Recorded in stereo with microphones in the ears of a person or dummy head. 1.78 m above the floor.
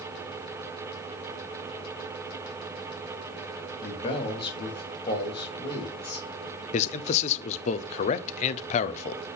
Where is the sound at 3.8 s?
25° left (ahead or behind), 3 m.